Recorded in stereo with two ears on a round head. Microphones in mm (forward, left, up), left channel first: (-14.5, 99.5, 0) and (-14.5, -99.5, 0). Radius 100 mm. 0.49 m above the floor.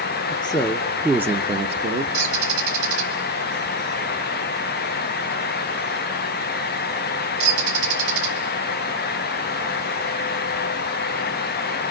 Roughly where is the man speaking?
Left.